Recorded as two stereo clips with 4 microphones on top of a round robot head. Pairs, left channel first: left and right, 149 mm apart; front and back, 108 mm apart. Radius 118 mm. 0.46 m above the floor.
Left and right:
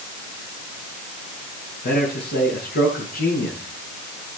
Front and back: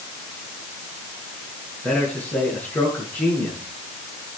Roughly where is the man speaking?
Left.